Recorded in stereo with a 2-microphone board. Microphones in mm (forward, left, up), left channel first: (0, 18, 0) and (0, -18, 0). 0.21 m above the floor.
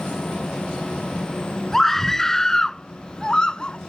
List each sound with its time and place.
1.7 s a scream: 10° left (ahead or behind); by 3.8 s 25° left (ahead or behind)